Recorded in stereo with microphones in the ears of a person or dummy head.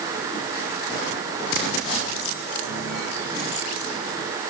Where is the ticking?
No ticking in this recording.